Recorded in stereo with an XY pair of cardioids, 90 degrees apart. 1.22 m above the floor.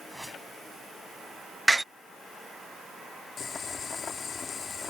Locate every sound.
0.1 s a whoosh: 5° right
1.7 s a door slam: 10° right
3.4 s boiling: 55° left